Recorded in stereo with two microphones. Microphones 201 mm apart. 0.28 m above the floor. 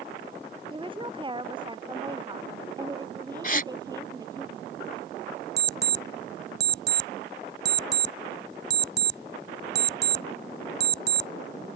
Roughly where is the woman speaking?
Right.